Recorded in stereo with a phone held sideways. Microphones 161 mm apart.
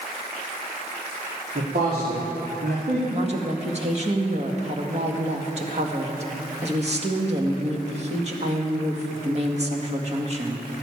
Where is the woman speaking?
45° right (ahead or behind), 2 m.